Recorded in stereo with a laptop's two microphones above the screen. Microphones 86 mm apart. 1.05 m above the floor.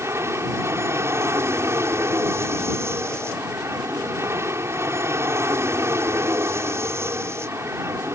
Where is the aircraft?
30° right (ahead or behind).